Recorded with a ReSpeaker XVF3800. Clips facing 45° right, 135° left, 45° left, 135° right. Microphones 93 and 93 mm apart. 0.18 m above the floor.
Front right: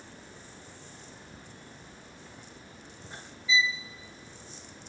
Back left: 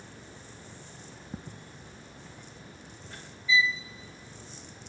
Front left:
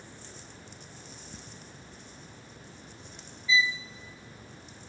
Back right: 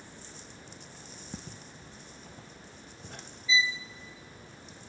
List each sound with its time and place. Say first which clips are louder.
1.3 s footsteps: back left 5 dB, back right 3 dB; 175° left, 0.9 m; by 3.3 s 110° right, 1.8 m
3.5 s a violin: back left 2 dB, front left 2 dB; 95° right, 0.8 m